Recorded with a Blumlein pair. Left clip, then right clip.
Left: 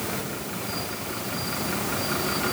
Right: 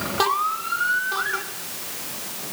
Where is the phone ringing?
I don't hear a phone ringing.